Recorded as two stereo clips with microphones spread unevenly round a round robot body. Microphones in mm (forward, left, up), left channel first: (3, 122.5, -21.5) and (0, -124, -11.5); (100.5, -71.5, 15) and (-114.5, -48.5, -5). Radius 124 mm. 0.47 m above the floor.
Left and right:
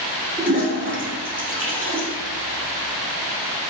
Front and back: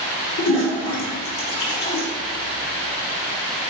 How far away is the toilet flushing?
About 1.5 m.